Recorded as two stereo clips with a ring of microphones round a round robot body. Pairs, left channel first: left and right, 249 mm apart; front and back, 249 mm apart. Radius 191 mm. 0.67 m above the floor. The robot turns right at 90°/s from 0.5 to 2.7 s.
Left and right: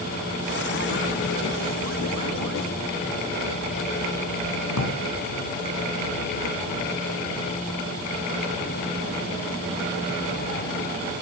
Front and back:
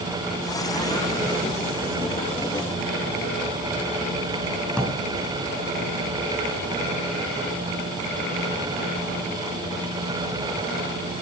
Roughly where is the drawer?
Left.